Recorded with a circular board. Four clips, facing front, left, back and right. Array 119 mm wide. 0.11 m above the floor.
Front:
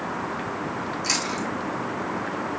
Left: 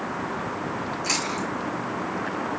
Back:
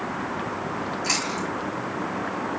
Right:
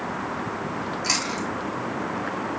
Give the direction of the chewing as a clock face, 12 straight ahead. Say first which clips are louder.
Even, even; 4 o'clock.